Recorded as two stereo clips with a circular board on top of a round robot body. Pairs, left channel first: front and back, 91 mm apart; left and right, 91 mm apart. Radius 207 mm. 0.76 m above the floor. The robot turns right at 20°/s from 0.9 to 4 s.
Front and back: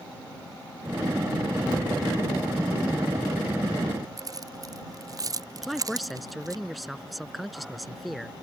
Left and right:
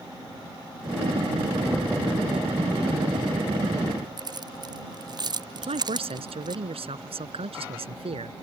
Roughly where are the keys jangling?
Behind right.